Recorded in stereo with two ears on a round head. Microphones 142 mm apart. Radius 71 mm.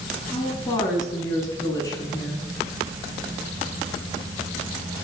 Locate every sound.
0.3 s a woman speaking: 25° left (ahead or behind), 8 m